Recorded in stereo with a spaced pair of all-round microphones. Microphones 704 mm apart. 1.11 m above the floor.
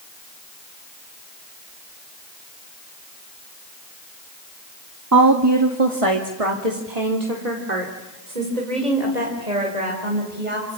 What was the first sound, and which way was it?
A woman speaking, 25° right (ahead or behind).